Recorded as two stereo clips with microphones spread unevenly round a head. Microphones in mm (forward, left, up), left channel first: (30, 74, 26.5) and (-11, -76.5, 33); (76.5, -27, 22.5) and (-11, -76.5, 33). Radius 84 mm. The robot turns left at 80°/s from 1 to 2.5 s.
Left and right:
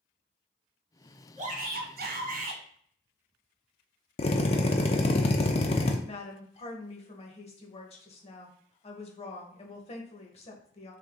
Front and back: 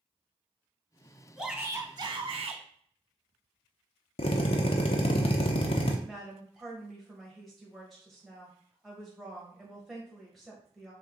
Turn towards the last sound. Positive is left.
turn(degrees=115)